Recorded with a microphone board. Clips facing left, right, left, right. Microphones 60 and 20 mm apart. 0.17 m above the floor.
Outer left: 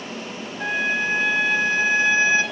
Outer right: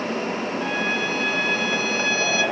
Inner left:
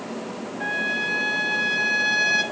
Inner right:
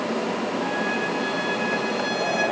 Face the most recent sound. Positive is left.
turn(degrees=25)  # may be behind; listen again after turning